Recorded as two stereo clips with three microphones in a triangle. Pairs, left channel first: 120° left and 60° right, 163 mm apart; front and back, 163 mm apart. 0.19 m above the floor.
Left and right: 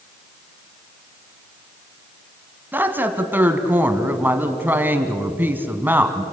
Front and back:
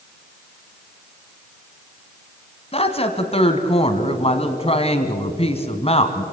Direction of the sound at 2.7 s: 10° left.